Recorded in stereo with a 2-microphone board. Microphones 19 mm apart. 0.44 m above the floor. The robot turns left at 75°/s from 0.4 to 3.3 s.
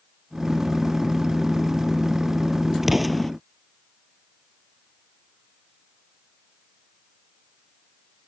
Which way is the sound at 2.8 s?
15° right (ahead or behind).